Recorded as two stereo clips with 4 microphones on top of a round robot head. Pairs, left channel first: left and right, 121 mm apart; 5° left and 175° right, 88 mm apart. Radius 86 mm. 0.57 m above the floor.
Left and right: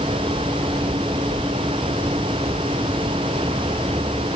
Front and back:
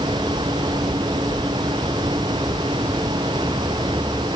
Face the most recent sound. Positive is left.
No sound to turn to.